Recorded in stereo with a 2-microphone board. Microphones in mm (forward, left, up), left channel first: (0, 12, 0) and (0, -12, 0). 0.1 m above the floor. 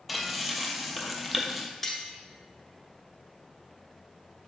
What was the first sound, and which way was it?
Frying, centre (ahead or behind).